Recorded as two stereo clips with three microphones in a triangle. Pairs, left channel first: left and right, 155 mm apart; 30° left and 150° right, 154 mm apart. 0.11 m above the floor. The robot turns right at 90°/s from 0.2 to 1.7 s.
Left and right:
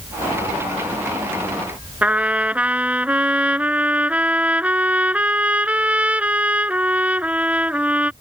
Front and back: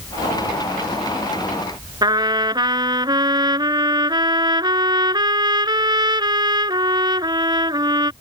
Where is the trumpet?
160° right.